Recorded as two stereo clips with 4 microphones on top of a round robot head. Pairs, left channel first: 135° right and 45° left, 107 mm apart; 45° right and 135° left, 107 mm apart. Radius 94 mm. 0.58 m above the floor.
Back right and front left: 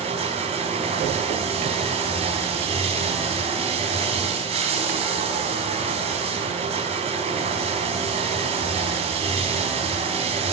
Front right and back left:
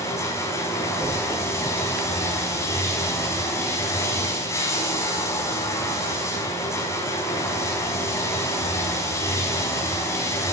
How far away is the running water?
About 5 m.